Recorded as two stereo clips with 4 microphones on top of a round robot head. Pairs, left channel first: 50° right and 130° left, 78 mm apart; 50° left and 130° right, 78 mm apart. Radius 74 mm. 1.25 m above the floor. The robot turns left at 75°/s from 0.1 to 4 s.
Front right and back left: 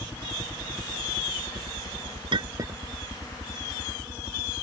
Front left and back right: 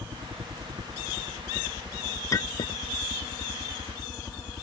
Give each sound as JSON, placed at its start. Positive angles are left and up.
{"t": 0.0, "sound": "a helicopter", "azimuth_deg": -100}
{"t": 2.3, "sound": "a clink", "azimuth_deg": 105}